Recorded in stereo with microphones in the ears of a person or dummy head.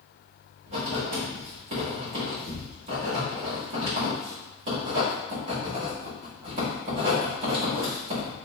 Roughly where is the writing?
Right.